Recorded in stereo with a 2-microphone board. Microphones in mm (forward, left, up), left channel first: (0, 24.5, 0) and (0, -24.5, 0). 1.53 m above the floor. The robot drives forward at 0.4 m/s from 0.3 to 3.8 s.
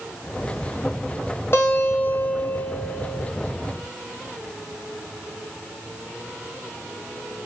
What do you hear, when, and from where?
1.5 s a guitar: 50° left (ahead or behind), 1.0 m; by 3.3 s 30° left (ahead or behind), 1.6 m